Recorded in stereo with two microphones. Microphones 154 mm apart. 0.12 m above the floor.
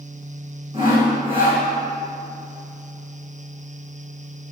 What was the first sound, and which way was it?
Sawing, 35° right (ahead or behind).